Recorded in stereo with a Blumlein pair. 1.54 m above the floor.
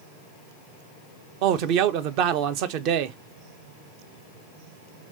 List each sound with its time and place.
1.4 s a man speaking: 40° right, 0.7 m